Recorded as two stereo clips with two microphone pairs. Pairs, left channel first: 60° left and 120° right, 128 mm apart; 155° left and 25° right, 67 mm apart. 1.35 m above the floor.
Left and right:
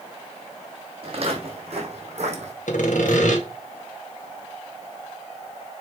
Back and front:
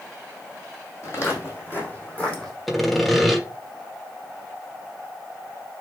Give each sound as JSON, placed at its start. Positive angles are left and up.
{"t": 1.0, "sound": "footsteps", "azimuth_deg": -160, "distance_m": 3.5}
{"t": 2.7, "sound": "sawing", "azimuth_deg": 65, "distance_m": 1.4}